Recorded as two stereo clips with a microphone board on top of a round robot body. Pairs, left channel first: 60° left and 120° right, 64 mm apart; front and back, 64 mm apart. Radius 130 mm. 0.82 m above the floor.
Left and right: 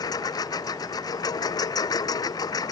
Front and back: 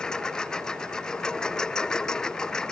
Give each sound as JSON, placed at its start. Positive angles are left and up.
{"t": 0.0, "sound": "a lawn mower", "azimuth_deg": 80}